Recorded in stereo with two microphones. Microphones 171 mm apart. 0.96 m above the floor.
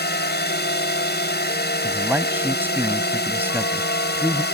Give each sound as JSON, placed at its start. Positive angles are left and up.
{"t": 0.0, "sound": "a drone", "side_deg": 80}
{"t": 1.8, "sound": "a man speaking", "side_deg": -10}